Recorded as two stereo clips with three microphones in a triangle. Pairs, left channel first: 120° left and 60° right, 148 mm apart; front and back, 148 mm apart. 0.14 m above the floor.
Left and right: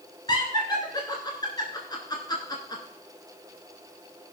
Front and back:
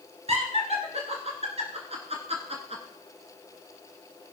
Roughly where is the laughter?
Behind.